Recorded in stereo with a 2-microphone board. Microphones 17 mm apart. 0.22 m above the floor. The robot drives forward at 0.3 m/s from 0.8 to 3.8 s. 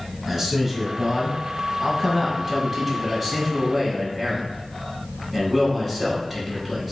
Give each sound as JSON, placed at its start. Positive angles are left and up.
{"t": 0.3, "sound": "a man speaking", "side_deg": -20, "distance_m": 1.0}